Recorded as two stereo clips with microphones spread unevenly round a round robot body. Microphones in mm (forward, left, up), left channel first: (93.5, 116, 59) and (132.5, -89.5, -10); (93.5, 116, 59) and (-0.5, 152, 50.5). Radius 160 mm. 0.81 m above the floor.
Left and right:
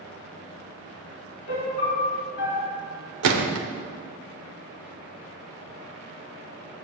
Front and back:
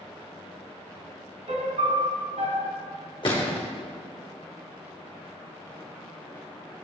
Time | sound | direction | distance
1.5 | a piano | 150° left | 1.8 m
3.2 | a gunshot | 90° right | 1.1 m